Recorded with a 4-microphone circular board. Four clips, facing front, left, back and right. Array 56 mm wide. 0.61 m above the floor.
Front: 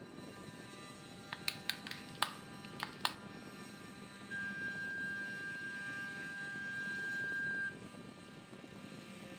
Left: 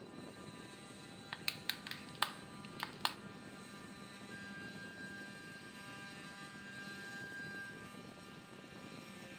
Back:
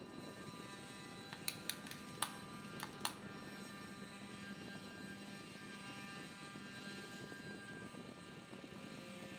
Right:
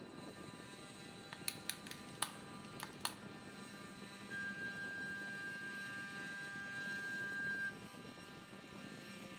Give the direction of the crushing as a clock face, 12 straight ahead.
11 o'clock.